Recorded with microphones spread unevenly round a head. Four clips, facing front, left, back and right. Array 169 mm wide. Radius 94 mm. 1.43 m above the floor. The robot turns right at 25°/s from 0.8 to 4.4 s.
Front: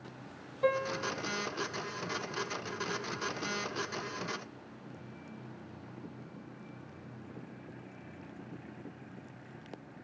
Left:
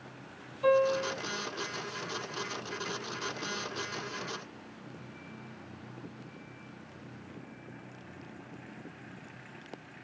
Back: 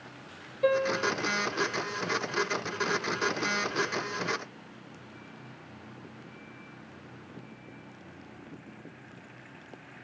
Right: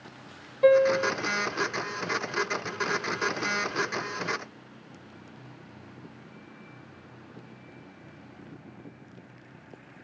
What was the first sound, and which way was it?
A piano, 70° right.